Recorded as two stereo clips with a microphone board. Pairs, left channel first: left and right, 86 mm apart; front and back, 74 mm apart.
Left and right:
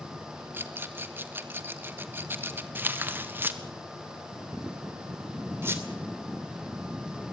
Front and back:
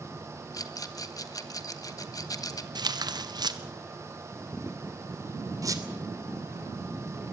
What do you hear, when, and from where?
0.5 s a rattle: 30° right, 1.5 m
2.8 s tearing paper: 155° right, 1.4 m
5.6 s a squeak: 150° right, 2.5 m